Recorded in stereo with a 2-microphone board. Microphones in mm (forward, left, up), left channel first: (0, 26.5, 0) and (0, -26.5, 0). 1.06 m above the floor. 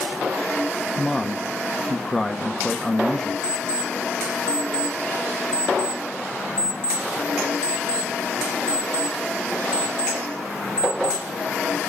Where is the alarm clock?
30° left (ahead or behind), 1.3 m.